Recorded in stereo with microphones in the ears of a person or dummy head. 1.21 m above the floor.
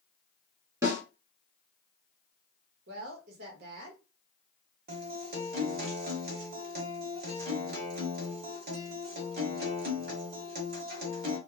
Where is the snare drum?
20° right (ahead or behind), 1.3 m.